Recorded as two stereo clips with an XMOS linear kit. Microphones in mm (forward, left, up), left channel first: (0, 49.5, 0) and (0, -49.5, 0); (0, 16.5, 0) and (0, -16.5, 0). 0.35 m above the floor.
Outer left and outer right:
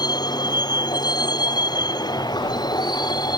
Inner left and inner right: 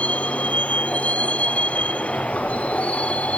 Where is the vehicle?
40° left (ahead or behind).